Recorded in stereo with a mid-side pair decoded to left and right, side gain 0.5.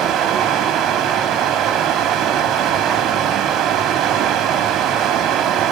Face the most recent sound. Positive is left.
turn(degrees=-65)